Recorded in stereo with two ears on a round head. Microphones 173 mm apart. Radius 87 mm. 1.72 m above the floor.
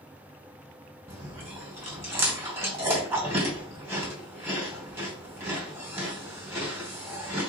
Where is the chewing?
15° right (ahead or behind), 3 m.